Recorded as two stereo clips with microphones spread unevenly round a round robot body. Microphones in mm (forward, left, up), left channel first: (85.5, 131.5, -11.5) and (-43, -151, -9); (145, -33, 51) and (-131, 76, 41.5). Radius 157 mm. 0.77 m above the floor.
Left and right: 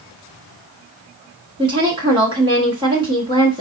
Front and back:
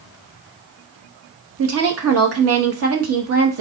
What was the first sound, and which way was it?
A woman speaking, 170° left.